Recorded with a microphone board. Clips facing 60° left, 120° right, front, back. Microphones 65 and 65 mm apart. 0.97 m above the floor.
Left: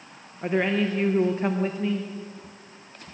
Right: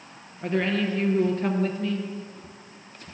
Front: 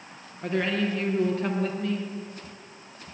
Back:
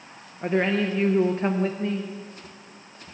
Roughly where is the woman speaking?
Behind left.